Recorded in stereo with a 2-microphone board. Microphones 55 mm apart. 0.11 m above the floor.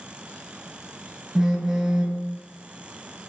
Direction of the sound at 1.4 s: 10° right (ahead or behind).